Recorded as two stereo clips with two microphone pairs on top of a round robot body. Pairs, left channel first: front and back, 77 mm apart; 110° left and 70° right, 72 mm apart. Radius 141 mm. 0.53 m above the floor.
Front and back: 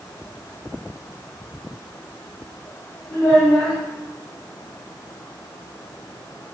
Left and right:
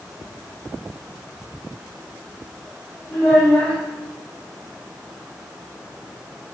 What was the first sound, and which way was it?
A child speaking, 45° left.